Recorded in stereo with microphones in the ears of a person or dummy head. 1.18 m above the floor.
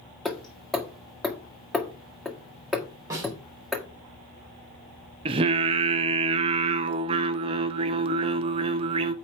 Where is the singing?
25° right (ahead or behind), 0.5 m.